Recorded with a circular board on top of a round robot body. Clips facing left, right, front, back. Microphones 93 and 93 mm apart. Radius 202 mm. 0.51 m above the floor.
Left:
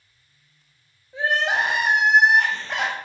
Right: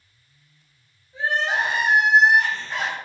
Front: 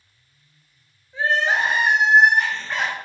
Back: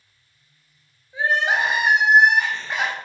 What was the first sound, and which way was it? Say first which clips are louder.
Crying: left 1 dB, even; 100° left.